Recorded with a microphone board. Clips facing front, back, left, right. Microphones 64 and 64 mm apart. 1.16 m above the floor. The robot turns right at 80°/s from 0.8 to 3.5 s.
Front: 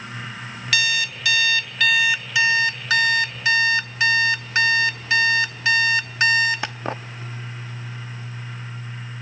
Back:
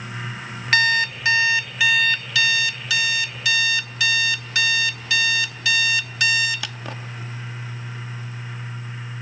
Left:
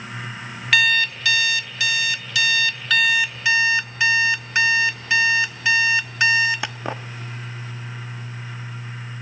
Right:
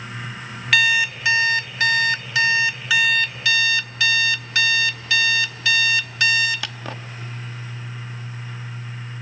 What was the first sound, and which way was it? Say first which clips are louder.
An alarm clock: back 5 dB, even; straight behind.